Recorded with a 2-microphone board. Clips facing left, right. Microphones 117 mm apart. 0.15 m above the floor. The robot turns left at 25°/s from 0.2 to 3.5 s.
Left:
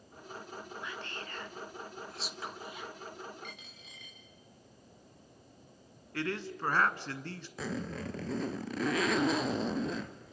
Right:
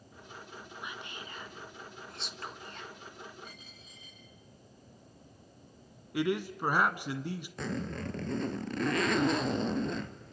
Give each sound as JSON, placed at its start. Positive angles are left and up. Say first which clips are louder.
{"t": 0.8, "sound": "whispering", "louder": "left 1 dB", "side_deg": -15, "distance_m": 1.2}
{"t": 3.4, "sound": "a dropped coin", "louder": "left 1 dB", "side_deg": 70, "distance_m": 5.5}
{"t": 6.1, "sound": "a man speaking", "louder": "right 5 dB", "side_deg": -15, "distance_m": 1.2}
{"t": 7.6, "sound": "a zipper", "louder": "even", "side_deg": 5, "distance_m": 0.9}